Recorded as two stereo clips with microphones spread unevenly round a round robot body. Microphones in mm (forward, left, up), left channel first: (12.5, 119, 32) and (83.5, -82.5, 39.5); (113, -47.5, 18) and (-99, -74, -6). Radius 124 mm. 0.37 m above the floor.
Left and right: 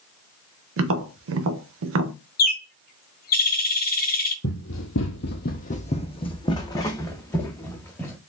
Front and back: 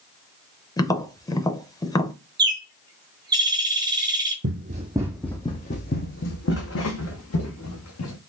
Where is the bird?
130° left, 0.6 m.